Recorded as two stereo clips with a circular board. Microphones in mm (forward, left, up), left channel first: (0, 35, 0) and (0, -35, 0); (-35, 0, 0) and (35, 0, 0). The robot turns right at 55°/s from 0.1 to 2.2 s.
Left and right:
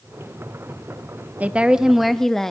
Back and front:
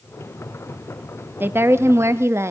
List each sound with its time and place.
1.4 s a woman speaking: 35° right, 0.6 m; by 2.5 s 10° left, 0.6 m